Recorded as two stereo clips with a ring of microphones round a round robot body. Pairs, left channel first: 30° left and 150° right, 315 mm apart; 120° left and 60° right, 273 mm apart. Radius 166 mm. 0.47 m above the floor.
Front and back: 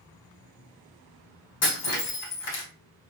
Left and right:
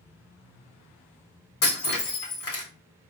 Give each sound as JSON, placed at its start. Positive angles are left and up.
{"t": 1.6, "sound": "breaking glass", "azimuth_deg": 85, "distance_m": 2.0}